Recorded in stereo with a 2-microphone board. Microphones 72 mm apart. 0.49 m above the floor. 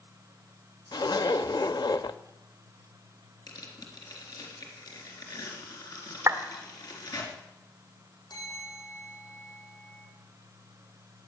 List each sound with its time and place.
0.9 s a zipper: 75° left (ahead or behind), 0.6 m
3.5 s tearing paper: 65° left (ahead or behind), 3.5 m
6.3 s a clap: 45° right (ahead or behind), 1.4 m
8.3 s a bell: 85° left, 9.5 m